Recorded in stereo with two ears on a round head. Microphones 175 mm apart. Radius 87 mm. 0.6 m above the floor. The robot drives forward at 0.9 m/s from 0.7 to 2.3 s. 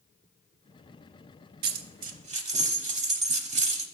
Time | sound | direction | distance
1.6 | a dropped coin | 50° right (ahead or behind) | 0.5 m